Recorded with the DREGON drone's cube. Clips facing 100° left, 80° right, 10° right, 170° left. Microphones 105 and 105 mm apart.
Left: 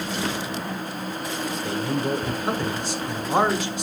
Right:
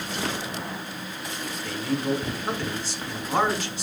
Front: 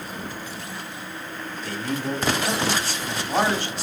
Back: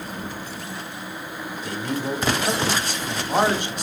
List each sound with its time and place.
1.6 s a man speaking: 135° left, 1.0 m